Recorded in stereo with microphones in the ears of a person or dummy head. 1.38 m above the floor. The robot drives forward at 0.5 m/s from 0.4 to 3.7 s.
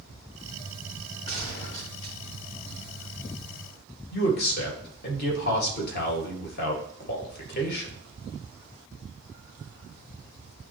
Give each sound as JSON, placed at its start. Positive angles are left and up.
{"t": 1.3, "sound": "a gunshot", "side_deg": 35, "distance_m": 1.6}
{"t": 4.1, "sound": "a man speaking", "side_deg": 60, "distance_m": 1.9}